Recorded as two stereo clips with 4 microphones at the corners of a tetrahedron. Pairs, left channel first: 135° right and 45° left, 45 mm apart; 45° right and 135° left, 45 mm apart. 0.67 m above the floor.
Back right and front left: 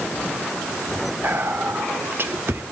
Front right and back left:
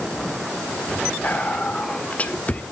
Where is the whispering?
10° left, 1.5 m.